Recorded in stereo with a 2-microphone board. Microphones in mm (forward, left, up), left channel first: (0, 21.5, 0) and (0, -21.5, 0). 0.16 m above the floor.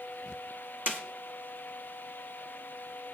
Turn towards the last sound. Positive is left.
turn(degrees=-50)  # may be behind; listen again after turning